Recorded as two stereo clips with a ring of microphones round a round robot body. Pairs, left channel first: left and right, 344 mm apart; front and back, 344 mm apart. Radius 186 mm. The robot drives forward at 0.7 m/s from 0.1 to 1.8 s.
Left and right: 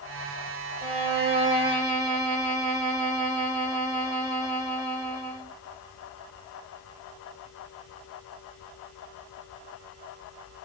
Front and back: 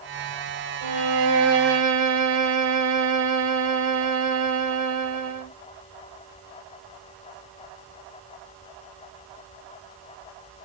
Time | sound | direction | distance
0.8 | a violin | 155° right | 1.3 m